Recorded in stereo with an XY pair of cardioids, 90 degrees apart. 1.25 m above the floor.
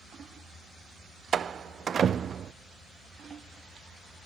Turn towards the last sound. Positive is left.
turn(degrees=-50)